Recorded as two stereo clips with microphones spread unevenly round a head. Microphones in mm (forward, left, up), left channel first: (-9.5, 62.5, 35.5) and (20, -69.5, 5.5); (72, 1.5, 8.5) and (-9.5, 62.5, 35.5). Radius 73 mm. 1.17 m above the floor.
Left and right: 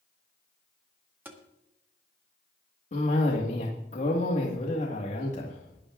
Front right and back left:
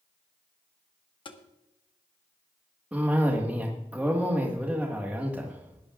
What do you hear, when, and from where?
1.2 s tapping: straight ahead, 1.6 m
2.9 s a cough: 65° left, 1.7 m